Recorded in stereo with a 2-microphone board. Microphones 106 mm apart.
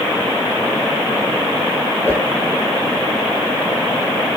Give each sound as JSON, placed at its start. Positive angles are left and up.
{"t": 2.0, "sound": "a whoosh", "side_deg": 25, "distance_m": 8.5}